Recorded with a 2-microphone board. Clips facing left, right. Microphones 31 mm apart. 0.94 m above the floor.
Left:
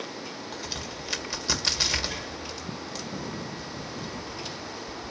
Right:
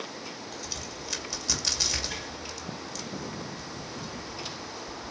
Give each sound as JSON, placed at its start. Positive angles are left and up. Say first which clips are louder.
{"t": 0.5, "sound": "a crack", "louder": "left 3 dB", "side_deg": 20, "distance_m": 2.0}